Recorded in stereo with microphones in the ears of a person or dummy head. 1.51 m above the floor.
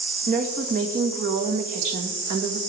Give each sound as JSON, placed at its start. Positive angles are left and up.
{"t": 0.3, "sound": "a woman speaking", "side_deg": -45, "distance_m": 1.9}